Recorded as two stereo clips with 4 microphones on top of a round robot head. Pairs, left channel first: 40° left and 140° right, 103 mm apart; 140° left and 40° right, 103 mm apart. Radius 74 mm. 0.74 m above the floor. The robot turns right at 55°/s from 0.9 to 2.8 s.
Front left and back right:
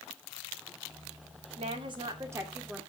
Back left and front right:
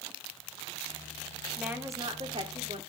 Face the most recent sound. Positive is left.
turn(degrees=-50)